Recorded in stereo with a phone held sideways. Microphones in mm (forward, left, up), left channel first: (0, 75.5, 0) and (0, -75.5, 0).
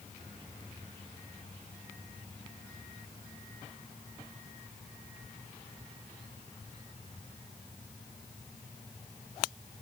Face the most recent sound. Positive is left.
No sound to turn to.